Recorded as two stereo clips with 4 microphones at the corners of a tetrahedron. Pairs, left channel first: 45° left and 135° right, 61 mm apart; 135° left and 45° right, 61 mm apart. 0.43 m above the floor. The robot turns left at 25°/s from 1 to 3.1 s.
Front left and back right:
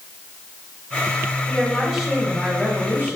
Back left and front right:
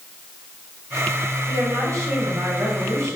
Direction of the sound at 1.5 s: 40° right.